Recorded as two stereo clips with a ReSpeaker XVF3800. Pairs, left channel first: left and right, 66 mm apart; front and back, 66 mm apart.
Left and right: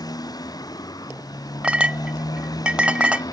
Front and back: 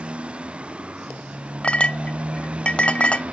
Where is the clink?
45° right.